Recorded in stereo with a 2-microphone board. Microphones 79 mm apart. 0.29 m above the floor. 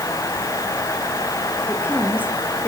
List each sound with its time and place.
1.7 s a woman speaking: 25° left (ahead or behind), 6 m